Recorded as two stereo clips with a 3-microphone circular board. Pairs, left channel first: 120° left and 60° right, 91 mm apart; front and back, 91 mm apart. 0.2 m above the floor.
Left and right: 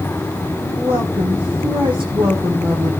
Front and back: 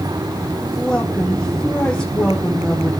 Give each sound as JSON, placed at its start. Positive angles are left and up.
{"t": 0.6, "sound": "a woman speaking", "azimuth_deg": -80, "distance_m": 8.0}